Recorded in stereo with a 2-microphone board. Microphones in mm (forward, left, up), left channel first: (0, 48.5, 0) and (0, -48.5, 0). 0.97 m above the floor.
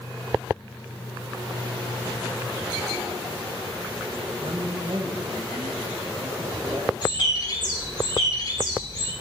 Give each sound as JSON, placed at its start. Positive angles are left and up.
{"t": 4.4, "sound": "a woman speaking", "side_deg": -60, "distance_m": 0.9}
{"t": 7.0, "sound": "a bird", "side_deg": 50, "distance_m": 3.0}